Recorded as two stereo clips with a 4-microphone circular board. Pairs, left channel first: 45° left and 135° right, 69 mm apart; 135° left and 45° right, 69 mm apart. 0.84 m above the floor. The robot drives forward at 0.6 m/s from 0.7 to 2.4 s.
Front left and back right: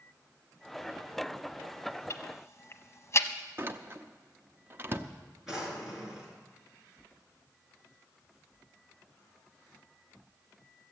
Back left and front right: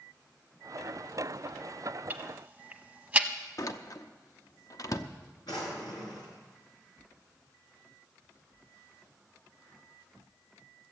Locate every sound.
2.1 s ticking: 15° left, 0.9 m; by 3.3 s 20° left, 0.7 m
3.6 s a door slam: 170° left, 0.7 m
5.5 s a drawer: 140° left, 3.5 m